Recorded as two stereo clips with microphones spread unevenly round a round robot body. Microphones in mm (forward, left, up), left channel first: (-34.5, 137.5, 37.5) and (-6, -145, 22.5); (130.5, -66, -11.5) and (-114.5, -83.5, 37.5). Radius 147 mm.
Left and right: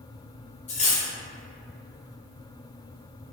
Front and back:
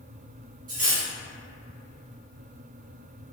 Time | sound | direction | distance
0.7 | cutlery clinking | 140° left | 0.6 m